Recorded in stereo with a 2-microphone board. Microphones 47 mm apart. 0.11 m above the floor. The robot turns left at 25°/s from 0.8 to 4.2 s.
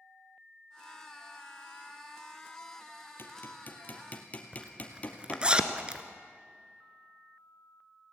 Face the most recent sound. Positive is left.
turn(degrees=-20)  # may be behind; listen again after turning